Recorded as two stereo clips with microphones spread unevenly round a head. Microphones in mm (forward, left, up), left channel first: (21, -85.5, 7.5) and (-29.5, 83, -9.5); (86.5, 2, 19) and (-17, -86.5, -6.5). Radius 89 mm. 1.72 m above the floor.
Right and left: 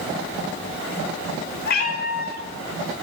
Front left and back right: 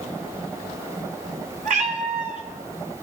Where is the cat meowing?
105° right, 2.5 m.